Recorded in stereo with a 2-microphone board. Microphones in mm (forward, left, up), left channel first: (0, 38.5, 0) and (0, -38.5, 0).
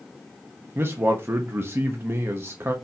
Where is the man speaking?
30° right (ahead or behind), 0.8 m.